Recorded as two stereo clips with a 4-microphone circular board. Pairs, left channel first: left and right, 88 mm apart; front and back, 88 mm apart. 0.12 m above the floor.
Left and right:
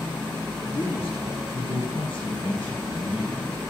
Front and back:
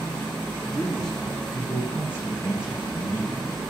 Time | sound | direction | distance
0.7 | a man speaking | 80° left | 7.5 m